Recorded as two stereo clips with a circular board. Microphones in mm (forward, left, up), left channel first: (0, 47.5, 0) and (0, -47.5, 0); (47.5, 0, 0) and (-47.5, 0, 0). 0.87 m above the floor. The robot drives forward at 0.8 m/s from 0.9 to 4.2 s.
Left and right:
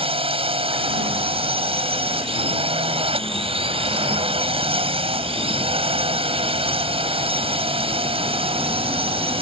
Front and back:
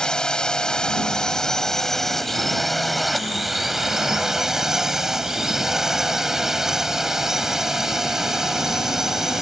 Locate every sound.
0.0 s a drone: 85° right; by 9.4 s 95° right